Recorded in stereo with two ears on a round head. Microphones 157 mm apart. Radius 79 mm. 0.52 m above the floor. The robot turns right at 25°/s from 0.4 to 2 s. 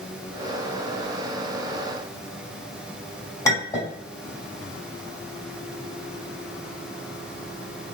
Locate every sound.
3.5 s a clink: 20° left (ahead or behind), 1.9 m